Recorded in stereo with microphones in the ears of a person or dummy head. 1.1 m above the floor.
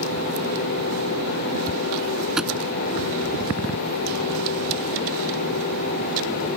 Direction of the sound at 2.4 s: 5° right (ahead or behind).